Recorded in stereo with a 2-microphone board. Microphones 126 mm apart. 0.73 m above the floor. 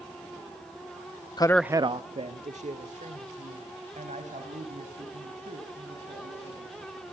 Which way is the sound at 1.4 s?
35° left (ahead or behind).